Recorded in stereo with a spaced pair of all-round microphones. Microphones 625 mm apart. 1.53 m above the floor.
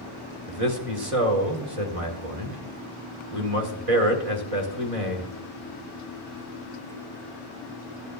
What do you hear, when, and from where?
0.5 s a man speaking: 60° right (ahead or behind), 1.7 m